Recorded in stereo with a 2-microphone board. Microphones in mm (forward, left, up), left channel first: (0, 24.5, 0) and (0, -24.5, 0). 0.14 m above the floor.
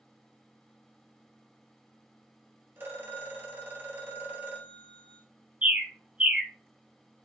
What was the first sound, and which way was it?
A phone ringing, 45° right (ahead or behind).